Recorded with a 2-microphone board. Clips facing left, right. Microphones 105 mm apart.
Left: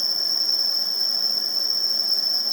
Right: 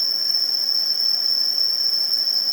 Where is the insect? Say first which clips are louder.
Left 1 dB; 40° left (ahead or behind), 2 m.